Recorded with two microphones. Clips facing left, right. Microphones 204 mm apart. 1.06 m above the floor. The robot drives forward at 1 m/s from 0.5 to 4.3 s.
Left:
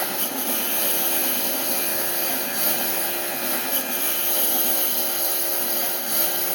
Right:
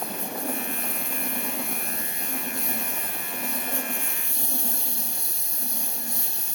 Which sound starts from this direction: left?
A lawn mower, at 0.0 s.